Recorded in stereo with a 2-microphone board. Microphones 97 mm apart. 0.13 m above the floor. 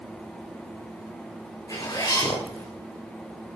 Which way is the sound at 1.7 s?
35° left (ahead or behind).